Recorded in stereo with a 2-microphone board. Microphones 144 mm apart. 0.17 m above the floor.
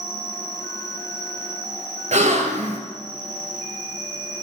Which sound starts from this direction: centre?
An insect, at 0.0 s.